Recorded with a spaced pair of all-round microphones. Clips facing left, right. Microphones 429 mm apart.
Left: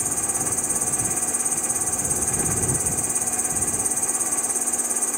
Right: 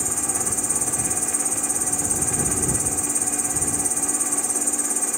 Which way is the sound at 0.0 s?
35° right (ahead or behind).